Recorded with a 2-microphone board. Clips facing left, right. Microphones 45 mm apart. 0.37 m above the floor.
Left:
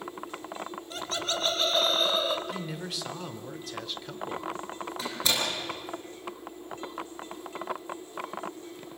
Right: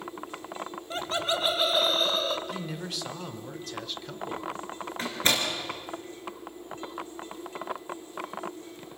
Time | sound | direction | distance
0.9 | laughter | 30° right (ahead or behind) | 1.0 m
2.5 | a man speaking | centre (ahead or behind) | 1.0 m
5.0 | a door slam | 45° right (ahead or behind) | 4.5 m